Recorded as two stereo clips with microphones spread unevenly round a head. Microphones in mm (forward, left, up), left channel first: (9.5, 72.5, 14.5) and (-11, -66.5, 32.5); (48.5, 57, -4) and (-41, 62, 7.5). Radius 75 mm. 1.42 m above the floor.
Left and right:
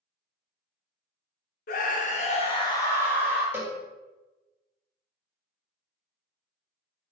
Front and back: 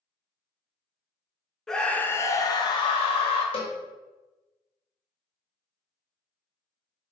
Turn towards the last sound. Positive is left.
turn(degrees=-30)